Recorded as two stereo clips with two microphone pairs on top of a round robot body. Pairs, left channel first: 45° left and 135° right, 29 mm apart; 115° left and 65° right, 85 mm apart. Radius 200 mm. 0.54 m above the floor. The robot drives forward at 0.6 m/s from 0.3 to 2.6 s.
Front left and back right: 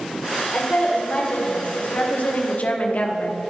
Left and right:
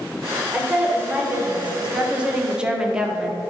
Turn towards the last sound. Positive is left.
turn(degrees=10)